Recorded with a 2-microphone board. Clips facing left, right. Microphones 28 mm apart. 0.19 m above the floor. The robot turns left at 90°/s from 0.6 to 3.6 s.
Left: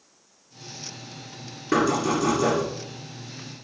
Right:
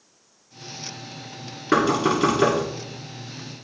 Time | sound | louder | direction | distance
1.7 | knocking | right 2 dB | 35° right | 1.9 m